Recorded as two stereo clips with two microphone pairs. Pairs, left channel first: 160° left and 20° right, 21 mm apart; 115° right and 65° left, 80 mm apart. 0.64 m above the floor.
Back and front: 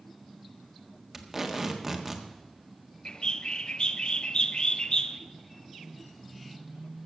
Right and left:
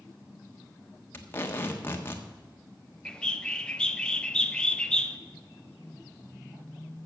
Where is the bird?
170° left, 0.6 m.